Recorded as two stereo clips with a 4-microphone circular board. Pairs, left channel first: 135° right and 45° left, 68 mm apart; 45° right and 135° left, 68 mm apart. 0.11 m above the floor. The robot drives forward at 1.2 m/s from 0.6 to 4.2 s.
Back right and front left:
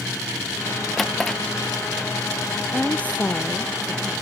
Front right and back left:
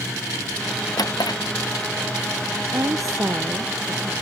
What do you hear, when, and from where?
1.0 s a drawer: 50° right
2.7 s a woman speaking: 155° left; by 4.1 s 165° left